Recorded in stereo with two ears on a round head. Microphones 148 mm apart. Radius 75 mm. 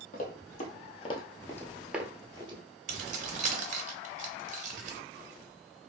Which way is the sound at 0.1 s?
55° left (ahead or behind).